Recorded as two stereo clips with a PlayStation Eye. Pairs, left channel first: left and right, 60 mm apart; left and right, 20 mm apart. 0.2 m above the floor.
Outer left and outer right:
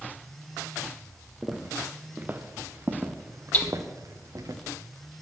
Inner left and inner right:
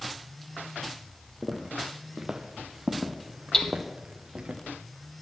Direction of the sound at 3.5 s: 25° left (ahead or behind).